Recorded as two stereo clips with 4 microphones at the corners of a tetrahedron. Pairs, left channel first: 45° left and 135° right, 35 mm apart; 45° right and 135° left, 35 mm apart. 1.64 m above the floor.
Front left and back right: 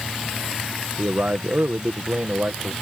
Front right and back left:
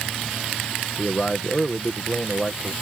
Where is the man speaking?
110° right.